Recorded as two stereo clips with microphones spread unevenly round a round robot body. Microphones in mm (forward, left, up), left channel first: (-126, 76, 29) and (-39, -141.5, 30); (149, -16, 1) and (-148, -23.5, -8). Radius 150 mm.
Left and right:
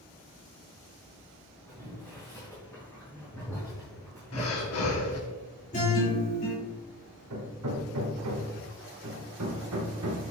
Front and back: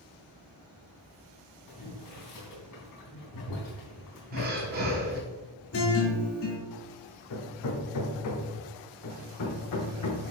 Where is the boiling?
30° left, 3.5 m.